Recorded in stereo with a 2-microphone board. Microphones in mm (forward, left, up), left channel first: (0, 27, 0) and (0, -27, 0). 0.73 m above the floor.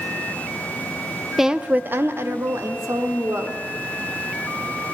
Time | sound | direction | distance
1.4 | a woman speaking | 5° right (ahead or behind) | 0.5 m